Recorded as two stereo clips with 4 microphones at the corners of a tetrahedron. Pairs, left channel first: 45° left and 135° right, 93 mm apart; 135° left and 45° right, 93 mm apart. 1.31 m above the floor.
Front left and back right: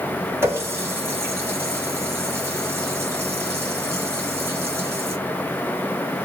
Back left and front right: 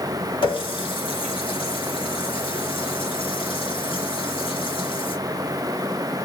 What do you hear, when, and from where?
0.4 s a running tap: 160° left, 1.9 m